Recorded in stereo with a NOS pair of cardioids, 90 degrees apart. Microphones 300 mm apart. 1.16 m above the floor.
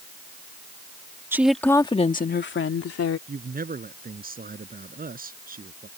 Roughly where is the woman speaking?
Ahead.